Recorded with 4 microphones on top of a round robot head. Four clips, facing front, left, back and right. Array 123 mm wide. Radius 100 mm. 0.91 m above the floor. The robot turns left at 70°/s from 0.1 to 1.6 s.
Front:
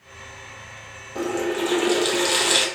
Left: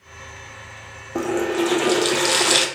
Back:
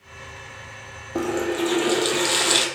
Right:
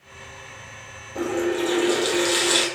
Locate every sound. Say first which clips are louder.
1.1 s a running tap: left 2 dB, back 1 dB; 125° left, 0.7 m; by 2.7 s 95° left, 0.7 m